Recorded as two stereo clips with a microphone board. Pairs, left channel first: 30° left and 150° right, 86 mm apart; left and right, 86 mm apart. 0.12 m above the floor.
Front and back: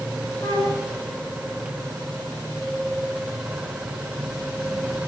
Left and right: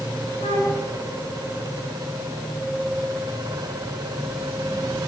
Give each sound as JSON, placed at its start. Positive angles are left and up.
{"t": 0.4, "sound": "a flute", "azimuth_deg": 90, "distance_m": 7.0}